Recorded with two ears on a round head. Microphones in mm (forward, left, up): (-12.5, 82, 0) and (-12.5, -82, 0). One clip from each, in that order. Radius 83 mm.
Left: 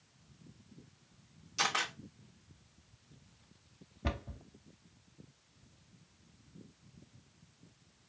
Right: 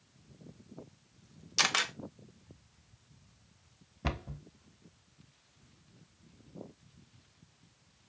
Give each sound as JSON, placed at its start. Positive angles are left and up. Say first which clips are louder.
{"t": 1.6, "sound": "a camera shutter", "louder": "right 4 dB", "side_deg": -60, "distance_m": 1.1}
{"t": 4.0, "sound": "a cupboard door", "louder": "right 2 dB", "side_deg": -25, "distance_m": 0.6}